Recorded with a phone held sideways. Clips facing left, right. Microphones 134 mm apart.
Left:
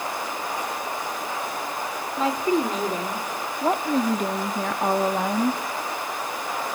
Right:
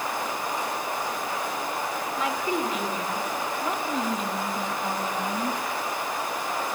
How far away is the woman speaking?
About 2.5 m.